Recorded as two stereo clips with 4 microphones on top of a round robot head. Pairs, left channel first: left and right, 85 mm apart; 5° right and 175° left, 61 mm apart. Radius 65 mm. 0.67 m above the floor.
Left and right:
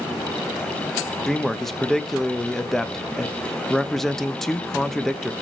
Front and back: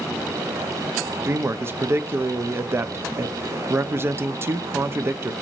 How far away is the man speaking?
About 0.5 m.